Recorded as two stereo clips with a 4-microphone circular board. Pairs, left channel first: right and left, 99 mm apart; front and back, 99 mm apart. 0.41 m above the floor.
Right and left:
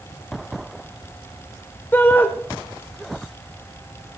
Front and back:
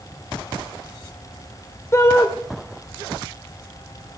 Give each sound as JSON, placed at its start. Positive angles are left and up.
{"t": 1.9, "sound": "a shout", "azimuth_deg": -35, "distance_m": 1.0}